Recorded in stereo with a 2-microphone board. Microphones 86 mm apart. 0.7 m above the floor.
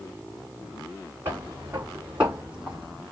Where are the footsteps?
25° right (ahead or behind), 2.5 m; by 3.0 s centre (ahead or behind), 2.0 m.